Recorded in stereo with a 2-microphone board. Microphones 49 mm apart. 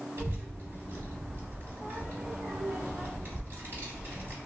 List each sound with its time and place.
0.2 s a child speaking: 55° right (ahead or behind), 0.8 m